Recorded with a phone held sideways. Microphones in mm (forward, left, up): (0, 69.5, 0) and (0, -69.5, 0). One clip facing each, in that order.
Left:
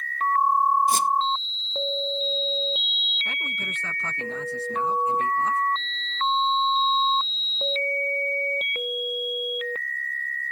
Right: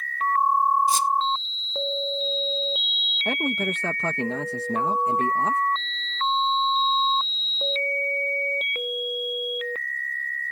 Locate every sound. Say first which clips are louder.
0.9 s a squeak: even; 55° left (ahead or behind)
3.2 s a man speaking: right 12 dB; 65° right (ahead or behind)